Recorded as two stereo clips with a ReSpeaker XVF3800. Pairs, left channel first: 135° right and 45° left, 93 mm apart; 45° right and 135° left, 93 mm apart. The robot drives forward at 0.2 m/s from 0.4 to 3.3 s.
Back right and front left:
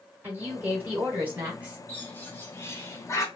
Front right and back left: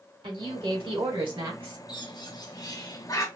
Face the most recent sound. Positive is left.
turn(degrees=-90)